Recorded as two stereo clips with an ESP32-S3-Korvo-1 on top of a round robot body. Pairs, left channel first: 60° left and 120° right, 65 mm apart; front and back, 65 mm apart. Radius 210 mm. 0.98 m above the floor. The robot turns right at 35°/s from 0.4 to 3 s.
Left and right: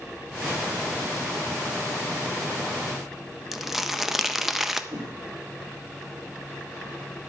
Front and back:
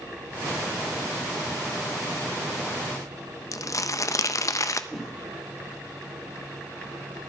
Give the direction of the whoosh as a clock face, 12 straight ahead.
3 o'clock.